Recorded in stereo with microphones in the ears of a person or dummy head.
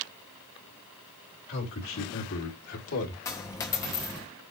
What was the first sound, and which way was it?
A man speaking, 70° left (ahead or behind).